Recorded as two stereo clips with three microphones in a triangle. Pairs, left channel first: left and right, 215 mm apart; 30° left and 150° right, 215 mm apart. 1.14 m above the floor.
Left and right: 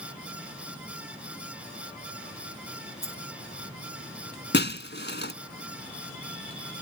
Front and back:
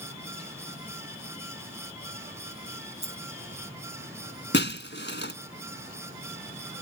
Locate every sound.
3.0 s a dropped coin: 90° right
4.5 s breaking glass: 60° left